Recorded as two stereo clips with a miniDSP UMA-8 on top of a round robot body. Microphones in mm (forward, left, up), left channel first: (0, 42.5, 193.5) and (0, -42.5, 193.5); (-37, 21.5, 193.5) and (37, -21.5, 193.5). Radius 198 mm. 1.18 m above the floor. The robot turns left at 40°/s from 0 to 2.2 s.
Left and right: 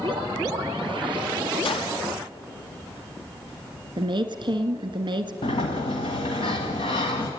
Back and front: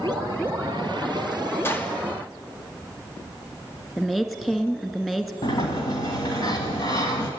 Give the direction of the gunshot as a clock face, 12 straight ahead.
9 o'clock.